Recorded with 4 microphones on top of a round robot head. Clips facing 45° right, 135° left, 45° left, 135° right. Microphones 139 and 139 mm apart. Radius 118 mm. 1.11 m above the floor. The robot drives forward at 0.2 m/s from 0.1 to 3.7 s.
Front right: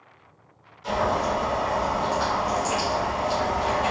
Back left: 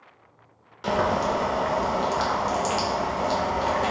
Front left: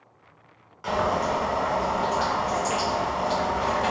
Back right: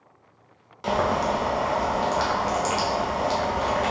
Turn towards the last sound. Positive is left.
turn(degrees=170)